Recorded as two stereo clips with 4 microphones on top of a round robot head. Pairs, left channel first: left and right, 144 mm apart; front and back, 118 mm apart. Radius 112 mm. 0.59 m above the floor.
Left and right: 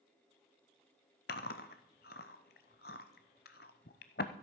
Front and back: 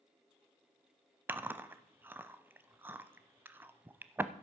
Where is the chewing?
110° left, 0.6 m.